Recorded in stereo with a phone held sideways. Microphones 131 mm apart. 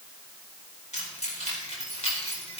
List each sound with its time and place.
0.9 s keys jangling: 65° left (ahead or behind), 4.5 m; by 2.6 s 50° left (ahead or behind), 4.5 m